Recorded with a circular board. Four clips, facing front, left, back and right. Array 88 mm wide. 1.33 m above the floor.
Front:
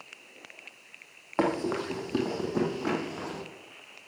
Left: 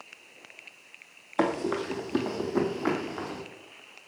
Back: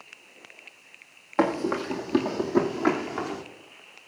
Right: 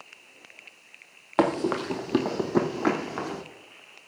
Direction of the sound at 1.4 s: 95° right.